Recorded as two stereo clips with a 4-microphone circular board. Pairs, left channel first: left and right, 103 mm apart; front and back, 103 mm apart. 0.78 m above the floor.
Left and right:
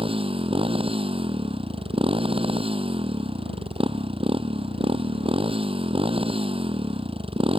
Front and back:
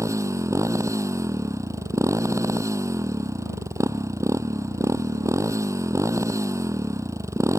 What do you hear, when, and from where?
0.0 s a motorcycle: 120° right